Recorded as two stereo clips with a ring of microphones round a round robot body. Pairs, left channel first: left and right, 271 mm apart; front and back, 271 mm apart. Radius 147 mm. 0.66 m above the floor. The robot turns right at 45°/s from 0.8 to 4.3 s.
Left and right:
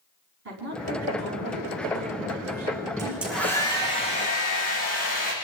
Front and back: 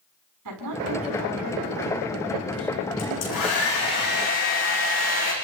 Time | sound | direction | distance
0.5 | a woman speaking | 145° right | 6.5 m
3.0 | a hair dryer | 15° right | 8.5 m